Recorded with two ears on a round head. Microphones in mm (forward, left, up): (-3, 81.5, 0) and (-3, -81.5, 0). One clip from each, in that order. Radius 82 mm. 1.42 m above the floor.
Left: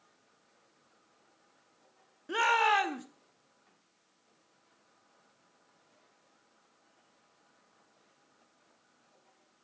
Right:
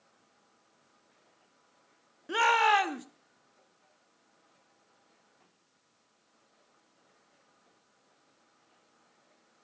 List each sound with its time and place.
2.3 s a shout: 10° right (ahead or behind), 0.8 m